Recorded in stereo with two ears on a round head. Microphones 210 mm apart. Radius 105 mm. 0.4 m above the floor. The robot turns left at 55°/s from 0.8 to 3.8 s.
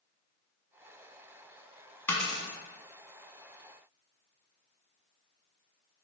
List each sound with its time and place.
2.1 s a dropped coin: 10° left (ahead or behind), 0.6 m; by 2.5 s 10° right (ahead or behind), 0.6 m